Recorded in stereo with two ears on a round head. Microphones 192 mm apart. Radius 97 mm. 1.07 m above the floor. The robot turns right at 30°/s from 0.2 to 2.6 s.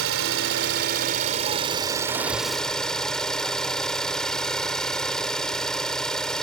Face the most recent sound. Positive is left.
turn(degrees=5)